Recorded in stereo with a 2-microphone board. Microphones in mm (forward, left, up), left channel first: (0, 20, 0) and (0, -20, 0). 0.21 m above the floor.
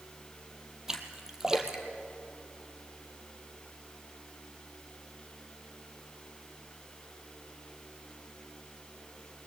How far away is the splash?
About 2 m.